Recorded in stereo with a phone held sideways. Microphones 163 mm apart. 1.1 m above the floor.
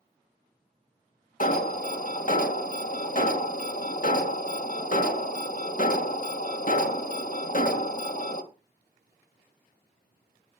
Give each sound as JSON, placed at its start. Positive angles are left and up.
{"t": 1.4, "sound": "an alarm", "side_deg": 55, "distance_m": 1.8}